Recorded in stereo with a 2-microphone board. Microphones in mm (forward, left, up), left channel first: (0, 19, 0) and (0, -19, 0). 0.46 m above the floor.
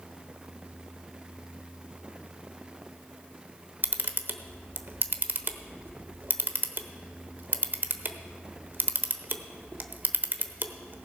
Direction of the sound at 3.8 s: 55° right (ahead or behind).